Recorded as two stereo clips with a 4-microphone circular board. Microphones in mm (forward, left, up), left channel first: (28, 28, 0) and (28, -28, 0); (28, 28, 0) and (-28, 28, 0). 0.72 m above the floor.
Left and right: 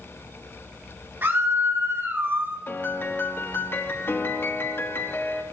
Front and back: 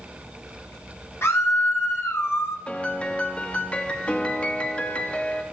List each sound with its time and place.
1.2 s a scream: 35° right, 3.5 m
2.7 s a piano: 60° left, 1.4 m